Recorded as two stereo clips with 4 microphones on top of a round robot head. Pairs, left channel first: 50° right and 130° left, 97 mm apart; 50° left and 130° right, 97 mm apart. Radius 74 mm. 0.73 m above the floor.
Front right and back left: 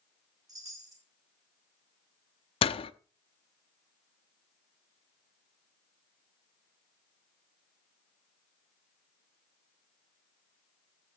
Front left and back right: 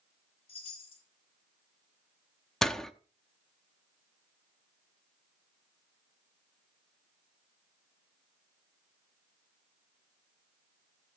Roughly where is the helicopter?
No helicopter in this recording.